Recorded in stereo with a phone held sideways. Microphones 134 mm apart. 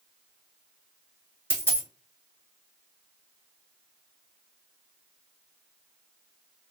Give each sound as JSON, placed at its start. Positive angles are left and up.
{"t": 1.5, "sound": "a dropped coin", "side_deg": -15, "distance_m": 2.5}